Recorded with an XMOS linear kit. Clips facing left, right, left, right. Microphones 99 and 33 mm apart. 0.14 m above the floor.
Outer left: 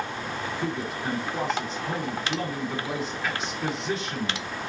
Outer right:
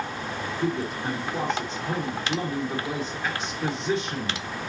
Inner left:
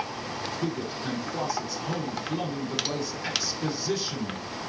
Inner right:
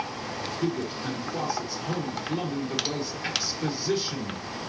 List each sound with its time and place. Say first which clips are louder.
0.6 s a man speaking: outer right 5 dB, inner right 4 dB; centre (ahead or behind), 1.5 m